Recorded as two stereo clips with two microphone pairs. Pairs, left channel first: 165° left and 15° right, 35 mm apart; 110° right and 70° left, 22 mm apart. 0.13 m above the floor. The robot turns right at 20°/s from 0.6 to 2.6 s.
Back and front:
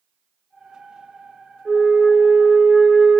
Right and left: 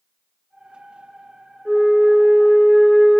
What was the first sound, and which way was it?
A flute, 105° right.